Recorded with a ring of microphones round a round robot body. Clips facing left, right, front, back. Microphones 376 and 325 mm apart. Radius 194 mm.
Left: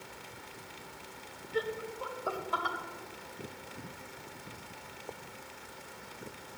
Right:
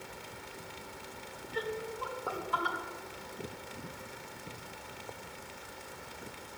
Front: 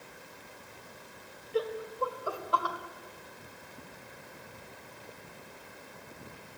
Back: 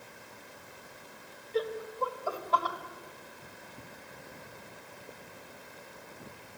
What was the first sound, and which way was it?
Laughter, 70° left.